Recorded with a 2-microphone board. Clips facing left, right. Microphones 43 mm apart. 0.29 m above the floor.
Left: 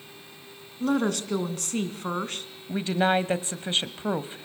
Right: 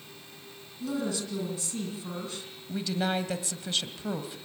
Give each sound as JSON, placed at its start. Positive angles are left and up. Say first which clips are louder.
{"t": 0.8, "sound": "a woman speaking", "louder": "left 7 dB", "side_deg": 55, "distance_m": 2.5}
{"t": 2.7, "sound": "a woman speaking", "louder": "left 6 dB", "side_deg": 35, "distance_m": 1.2}